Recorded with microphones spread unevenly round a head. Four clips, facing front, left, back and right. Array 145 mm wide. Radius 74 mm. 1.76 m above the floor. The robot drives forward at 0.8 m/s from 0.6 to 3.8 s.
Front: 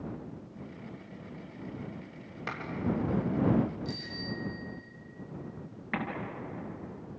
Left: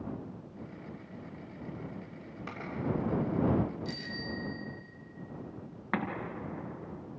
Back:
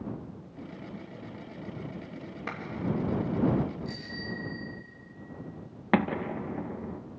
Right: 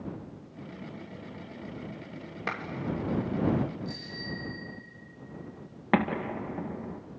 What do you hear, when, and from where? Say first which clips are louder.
2.5 s a clap: right 9 dB, even; 80° right, 7 m; by 2.6 s 85° right, 7 m
3.9 s a bicycle bell: even, even; 65° left, 4.5 m
5.9 s an explosion: right 8 dB, back 9 dB; 140° right, 1.9 m